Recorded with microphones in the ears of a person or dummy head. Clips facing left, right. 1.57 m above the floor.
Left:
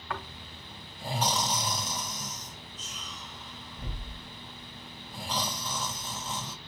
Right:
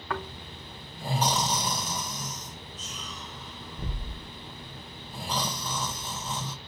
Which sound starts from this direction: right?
Snoring, at 0.1 s.